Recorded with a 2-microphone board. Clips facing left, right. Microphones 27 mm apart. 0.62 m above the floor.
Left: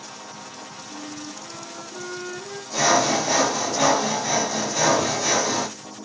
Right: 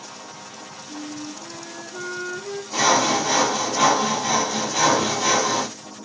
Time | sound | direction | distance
0.9 | a flute | 30° right (ahead or behind) | 0.7 m
2.7 | sawing | 45° right (ahead or behind) | 1.6 m